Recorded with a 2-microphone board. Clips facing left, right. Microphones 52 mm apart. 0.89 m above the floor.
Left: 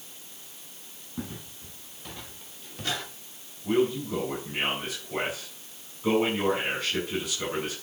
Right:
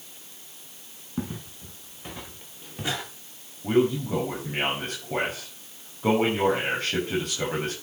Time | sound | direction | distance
1.2 | footsteps | 25° right (ahead or behind) | 8 m
3.6 | a man speaking | 50° right (ahead or behind) | 6 m